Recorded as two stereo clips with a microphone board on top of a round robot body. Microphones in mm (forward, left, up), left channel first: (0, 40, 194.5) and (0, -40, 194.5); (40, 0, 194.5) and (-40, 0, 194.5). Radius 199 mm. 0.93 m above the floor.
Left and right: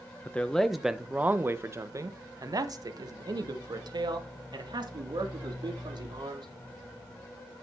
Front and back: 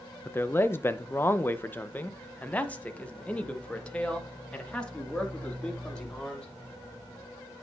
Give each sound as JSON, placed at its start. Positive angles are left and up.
{"t": 0.2, "sound": "a man speaking", "azimuth_deg": 40, "distance_m": 0.9}